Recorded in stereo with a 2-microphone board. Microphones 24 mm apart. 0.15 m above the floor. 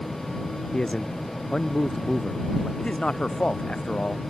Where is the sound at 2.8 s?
45° left (ahead or behind).